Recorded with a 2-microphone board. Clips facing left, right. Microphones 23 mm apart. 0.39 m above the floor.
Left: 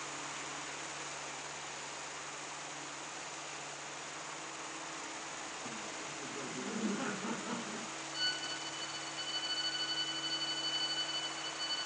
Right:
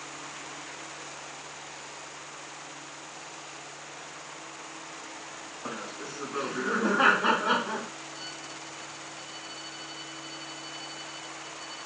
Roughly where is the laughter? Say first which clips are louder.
Right 6 dB; right.